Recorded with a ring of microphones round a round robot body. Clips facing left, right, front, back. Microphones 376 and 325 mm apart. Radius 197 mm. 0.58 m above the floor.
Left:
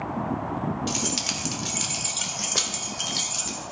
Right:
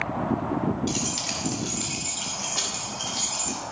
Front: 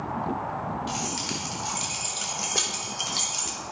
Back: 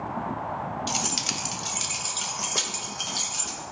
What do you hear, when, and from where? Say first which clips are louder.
0.9 s keys jangling: even, front 1 dB; 155° left, 1.4 m; by 3.6 s 80° left, 2.5 m